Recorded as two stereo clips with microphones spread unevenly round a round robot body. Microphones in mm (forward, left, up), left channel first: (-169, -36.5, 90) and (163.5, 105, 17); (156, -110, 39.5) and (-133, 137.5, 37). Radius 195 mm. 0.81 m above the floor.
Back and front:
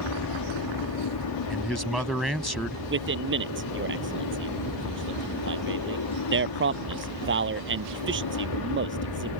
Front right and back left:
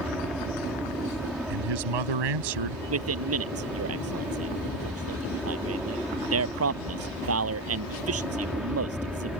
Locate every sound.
0.0 s an aircraft: 130° right
1.5 s a man speaking: 115° left
2.9 s a man speaking: 85° left